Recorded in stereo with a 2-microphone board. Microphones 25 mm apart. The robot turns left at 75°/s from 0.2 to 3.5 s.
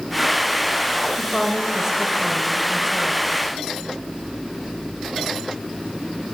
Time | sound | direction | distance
1.2 | a woman speaking | 5° left (ahead or behind) | 0.9 m